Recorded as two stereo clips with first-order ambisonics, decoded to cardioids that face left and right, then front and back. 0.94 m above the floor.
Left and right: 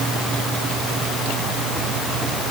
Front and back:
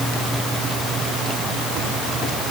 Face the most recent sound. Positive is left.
No sound to turn to.